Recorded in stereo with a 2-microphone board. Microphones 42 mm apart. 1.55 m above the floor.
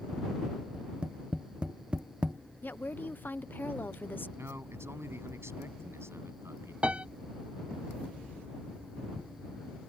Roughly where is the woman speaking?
Left.